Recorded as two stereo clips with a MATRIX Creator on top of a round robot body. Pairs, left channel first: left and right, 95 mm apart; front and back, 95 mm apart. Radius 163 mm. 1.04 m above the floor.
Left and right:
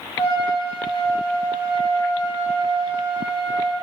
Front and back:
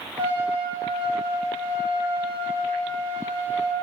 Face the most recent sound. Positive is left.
turn(degrees=145)